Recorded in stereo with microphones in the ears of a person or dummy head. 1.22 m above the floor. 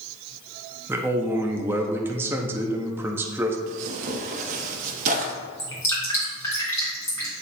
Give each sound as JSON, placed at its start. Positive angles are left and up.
{"t": 0.9, "sound": "a man speaking", "side_deg": -5, "distance_m": 0.7}
{"t": 3.7, "sound": "tearing paper", "side_deg": -45, "distance_m": 0.9}
{"t": 5.6, "sound": "dripping", "side_deg": 20, "distance_m": 2.5}